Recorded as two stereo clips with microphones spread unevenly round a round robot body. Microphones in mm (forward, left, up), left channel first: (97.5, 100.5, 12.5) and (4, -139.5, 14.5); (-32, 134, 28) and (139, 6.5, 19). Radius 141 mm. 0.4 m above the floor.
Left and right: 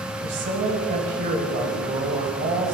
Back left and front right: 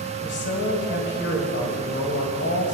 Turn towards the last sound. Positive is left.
turn(degrees=-175)